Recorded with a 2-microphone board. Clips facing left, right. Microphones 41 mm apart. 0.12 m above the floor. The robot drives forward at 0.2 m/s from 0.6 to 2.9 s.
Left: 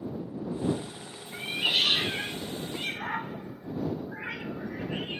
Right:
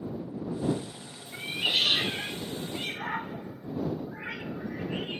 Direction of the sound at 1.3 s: 10° left (ahead or behind).